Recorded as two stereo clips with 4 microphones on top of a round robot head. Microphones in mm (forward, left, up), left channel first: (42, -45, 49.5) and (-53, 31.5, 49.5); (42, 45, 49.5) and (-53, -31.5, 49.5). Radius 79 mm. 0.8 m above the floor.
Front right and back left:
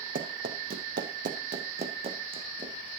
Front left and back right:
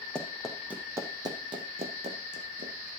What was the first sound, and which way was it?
Running footsteps, 120° left.